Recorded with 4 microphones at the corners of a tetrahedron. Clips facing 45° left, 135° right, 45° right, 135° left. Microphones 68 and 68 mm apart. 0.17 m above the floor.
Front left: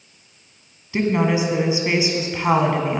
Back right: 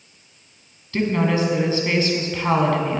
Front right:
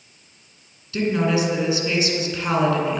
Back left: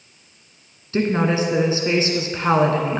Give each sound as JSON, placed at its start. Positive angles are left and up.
{"t": 0.9, "sound": "a woman speaking", "azimuth_deg": 110, "distance_m": 1.4}